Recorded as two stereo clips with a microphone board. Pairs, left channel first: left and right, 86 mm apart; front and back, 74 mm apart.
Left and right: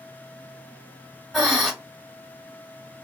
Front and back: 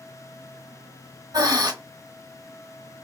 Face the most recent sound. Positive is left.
turn(degrees=-175)